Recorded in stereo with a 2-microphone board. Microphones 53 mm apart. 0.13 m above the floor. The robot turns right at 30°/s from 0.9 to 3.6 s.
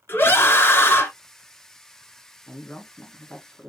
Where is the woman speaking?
20° left (ahead or behind), 1.2 m.